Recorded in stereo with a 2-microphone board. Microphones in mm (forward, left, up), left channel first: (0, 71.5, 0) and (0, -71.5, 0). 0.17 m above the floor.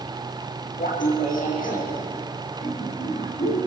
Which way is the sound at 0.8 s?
65° left (ahead or behind).